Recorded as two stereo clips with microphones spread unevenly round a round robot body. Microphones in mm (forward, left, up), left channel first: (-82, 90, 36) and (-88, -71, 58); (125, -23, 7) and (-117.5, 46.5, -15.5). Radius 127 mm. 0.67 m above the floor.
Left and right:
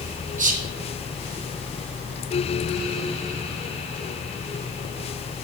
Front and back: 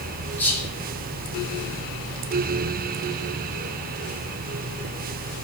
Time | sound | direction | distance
0.4 | whispering | 100° right | 1.1 m